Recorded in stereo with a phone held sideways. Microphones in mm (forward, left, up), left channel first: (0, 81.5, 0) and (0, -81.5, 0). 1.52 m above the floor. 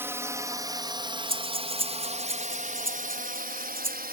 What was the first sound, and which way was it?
A drone, 15° right (ahead or behind).